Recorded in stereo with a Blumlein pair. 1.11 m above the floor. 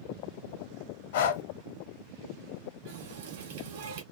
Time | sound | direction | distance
1.1 | breathing | 55° left | 0.8 m
2.9 | a running tap | 55° right | 1.6 m